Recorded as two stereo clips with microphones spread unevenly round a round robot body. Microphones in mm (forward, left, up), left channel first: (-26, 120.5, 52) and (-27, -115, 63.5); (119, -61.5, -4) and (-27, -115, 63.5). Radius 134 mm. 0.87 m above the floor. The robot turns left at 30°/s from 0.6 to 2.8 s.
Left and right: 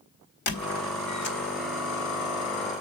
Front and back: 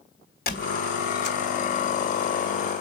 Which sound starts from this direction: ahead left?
A squeak, at 0.5 s.